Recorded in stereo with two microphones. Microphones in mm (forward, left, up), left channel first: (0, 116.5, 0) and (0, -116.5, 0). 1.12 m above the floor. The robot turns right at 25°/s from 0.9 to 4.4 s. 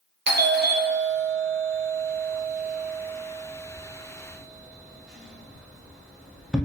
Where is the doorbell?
50° right (ahead or behind), 0.7 m; by 6.7 s 5° left (ahead or behind), 0.7 m.